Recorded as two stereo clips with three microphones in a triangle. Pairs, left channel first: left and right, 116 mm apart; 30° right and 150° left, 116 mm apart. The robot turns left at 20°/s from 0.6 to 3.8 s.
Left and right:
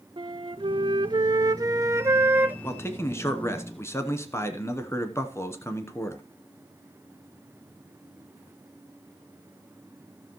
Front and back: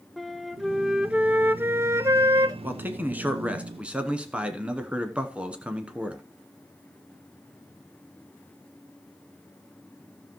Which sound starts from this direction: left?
A man speaking, at 2.6 s.